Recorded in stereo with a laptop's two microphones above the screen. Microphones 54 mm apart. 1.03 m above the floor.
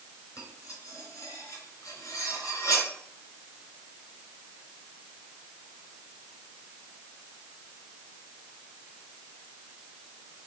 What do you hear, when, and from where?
0.4 s cutlery clinking: 75° left (ahead or behind), 3 m